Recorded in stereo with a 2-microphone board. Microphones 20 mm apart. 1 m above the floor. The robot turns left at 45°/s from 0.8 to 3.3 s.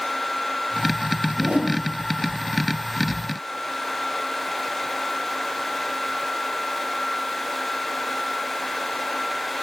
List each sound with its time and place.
1.3 s a whoosh: 65° right (ahead or behind), 5.5 m; by 1.8 s 85° right, 5.5 m